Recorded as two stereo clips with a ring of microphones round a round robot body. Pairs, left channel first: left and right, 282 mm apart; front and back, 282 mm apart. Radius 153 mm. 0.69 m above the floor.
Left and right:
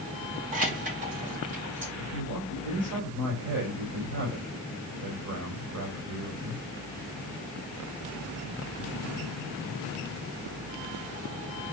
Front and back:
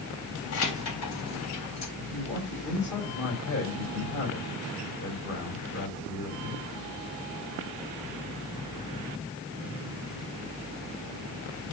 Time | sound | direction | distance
0.5 | keys jangling | 30° right | 3 m
2.0 | a man speaking | 45° right | 4.5 m